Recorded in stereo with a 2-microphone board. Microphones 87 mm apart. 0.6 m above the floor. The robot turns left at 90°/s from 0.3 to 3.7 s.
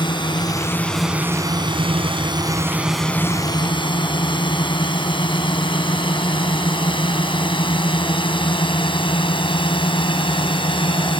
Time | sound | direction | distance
0.0 | a drone | 65° left (ahead or behind) | ?